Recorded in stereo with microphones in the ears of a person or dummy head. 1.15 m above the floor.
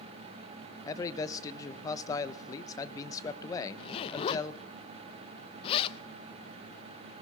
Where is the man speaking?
20° left (ahead or behind), 0.7 m.